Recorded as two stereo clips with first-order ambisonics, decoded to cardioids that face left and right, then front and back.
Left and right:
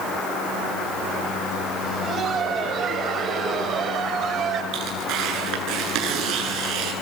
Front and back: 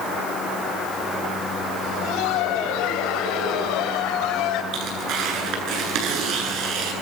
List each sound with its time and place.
1.8 s laughter: 30° right, 7.5 m; by 4.6 s 35° right, 6.5 m
4.7 s tearing paper: 135° right, 10 m